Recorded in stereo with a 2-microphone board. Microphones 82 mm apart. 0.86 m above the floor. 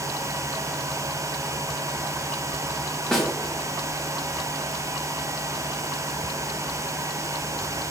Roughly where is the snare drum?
Centre.